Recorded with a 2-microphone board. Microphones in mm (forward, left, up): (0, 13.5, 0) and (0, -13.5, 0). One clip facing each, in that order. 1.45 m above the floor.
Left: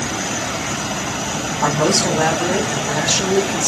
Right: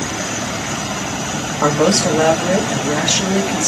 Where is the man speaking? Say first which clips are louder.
Right 3 dB; 50° right (ahead or behind), 1.9 m.